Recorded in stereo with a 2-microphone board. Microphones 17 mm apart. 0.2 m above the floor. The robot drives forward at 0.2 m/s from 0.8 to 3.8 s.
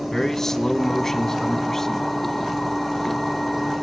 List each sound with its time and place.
0.1 s a man speaking: 25° left (ahead or behind), 1.6 m